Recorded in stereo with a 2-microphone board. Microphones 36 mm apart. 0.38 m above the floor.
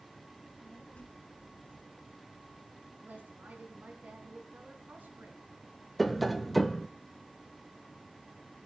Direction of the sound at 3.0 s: 60° right (ahead or behind).